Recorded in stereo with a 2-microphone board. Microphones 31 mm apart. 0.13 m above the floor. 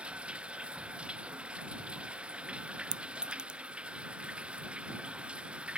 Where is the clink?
30° right (ahead or behind).